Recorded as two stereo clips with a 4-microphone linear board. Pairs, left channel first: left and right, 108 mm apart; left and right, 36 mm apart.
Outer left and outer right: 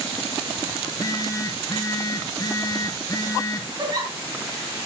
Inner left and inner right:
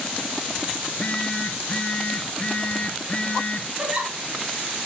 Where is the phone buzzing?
35° left (ahead or behind), 0.6 m.